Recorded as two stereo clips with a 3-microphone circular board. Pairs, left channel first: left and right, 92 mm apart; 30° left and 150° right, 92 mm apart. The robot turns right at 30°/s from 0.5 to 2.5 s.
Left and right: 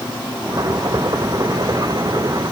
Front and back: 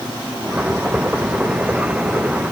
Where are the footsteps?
I don't hear footsteps.